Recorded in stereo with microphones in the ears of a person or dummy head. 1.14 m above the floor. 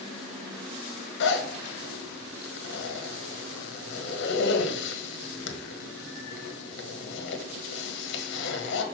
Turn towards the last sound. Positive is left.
turn(degrees=55)  # may be behind; listen again after turning